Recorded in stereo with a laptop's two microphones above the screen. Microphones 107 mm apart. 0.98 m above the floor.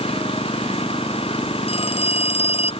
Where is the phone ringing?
65° left (ahead or behind).